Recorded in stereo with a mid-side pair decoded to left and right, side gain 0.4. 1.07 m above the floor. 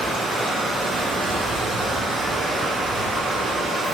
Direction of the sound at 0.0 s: 70° right.